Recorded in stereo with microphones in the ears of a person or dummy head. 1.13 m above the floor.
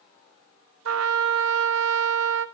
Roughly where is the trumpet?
Right.